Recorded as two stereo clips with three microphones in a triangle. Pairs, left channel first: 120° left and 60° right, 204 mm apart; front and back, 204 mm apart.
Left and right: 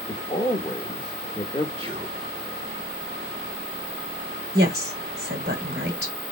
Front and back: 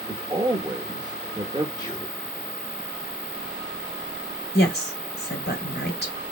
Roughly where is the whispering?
Ahead right.